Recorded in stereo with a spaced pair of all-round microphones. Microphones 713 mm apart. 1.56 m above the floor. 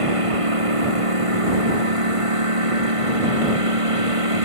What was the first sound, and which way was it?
A lawn mower, 45° right (ahead or behind).